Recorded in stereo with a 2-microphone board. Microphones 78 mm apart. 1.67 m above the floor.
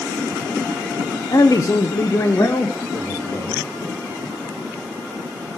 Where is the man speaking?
55° left (ahead or behind), 0.7 m; by 3.7 s 35° left (ahead or behind), 3 m.